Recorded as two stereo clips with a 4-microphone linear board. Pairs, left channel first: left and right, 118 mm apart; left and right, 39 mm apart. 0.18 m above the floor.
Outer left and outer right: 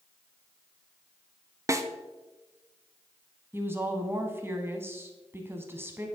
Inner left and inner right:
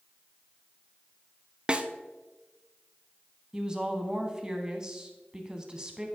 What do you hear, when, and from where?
1.7 s a snare drum: 25° right (ahead or behind), 0.5 m
3.5 s a woman speaking: 20° right (ahead or behind), 1.0 m